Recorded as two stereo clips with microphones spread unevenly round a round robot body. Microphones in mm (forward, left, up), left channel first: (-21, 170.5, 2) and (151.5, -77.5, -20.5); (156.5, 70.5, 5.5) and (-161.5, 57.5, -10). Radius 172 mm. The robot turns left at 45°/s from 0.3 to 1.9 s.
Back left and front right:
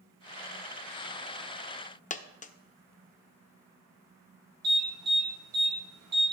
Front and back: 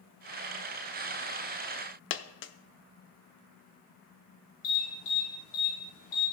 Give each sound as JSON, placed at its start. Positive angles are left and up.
{"t": 2.1, "sound": "a dropped coin", "azimuth_deg": 60, "distance_m": 0.7}
{"t": 4.6, "sound": "an alarm", "azimuth_deg": -25, "distance_m": 4.5}